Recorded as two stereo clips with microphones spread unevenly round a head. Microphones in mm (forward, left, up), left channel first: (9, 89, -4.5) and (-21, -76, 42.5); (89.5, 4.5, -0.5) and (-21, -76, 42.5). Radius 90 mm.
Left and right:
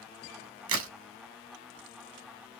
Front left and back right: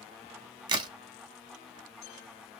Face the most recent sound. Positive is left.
turn(degrees=-85)